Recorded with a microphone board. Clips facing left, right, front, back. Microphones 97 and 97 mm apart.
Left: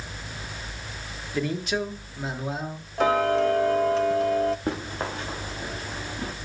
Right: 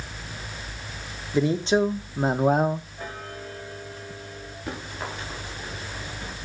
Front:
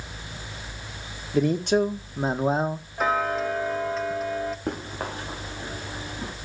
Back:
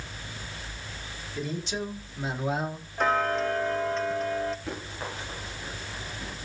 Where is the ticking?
85° left, 0.5 m.